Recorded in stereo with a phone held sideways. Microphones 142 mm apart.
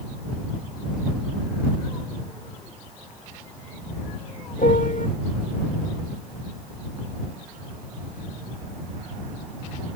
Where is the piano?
70° left (ahead or behind).